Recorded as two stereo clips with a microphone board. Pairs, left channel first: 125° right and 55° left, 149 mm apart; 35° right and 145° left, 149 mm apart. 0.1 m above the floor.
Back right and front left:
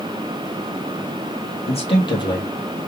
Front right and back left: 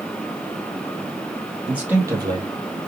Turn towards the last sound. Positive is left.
turn(degrees=165)